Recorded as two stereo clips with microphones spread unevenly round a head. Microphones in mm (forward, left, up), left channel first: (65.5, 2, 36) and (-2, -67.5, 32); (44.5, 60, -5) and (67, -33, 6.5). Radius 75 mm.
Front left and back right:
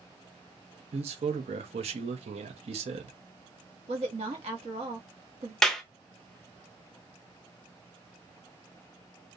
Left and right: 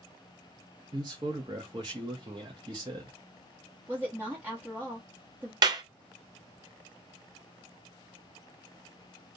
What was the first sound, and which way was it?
A man speaking, 135° right.